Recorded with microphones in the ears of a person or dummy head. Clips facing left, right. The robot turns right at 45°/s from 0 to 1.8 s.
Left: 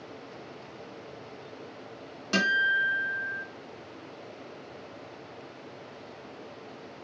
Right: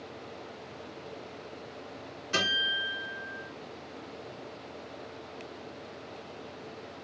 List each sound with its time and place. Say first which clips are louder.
2.3 s a guitar: left 5 dB; 70° left (ahead or behind), 1.8 m